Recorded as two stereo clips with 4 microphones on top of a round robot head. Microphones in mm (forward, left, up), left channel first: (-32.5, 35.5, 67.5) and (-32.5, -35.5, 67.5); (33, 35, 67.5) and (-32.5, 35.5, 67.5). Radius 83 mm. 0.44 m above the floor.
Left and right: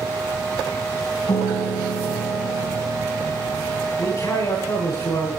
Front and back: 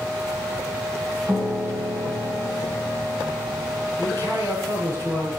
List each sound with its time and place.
1.3 s a piano: 115° left, 4 m
4.0 s a man speaking: 130° left, 9.5 m